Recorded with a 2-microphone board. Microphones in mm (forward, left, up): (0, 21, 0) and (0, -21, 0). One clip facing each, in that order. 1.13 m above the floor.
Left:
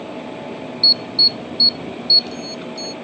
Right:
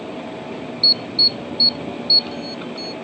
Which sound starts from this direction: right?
An alarm, at 0.8 s.